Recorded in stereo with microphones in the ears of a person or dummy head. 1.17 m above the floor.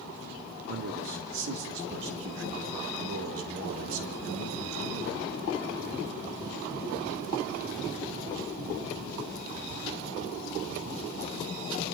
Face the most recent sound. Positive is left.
turn(degrees=-85)